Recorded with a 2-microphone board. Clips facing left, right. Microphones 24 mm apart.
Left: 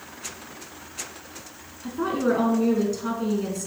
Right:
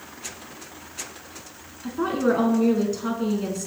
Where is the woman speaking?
15° right (ahead or behind), 1.2 m.